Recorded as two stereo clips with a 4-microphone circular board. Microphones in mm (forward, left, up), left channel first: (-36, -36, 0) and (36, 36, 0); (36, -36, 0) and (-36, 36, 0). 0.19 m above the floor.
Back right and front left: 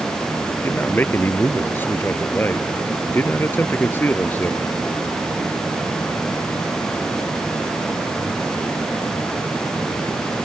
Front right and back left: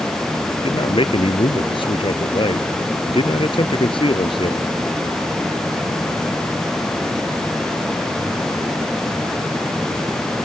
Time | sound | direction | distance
0.6 | a man speaking | 65° right | ?